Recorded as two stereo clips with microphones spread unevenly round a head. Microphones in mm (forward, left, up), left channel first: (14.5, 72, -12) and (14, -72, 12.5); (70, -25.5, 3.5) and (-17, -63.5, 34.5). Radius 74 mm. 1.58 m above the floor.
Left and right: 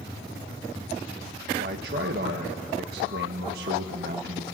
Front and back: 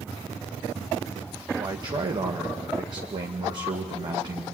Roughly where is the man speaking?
Behind right.